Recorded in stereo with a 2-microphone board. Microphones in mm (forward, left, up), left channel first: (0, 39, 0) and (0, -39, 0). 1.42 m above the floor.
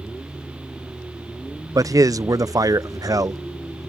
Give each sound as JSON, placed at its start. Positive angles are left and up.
{"t": 1.8, "sound": "a man speaking", "side_deg": -50}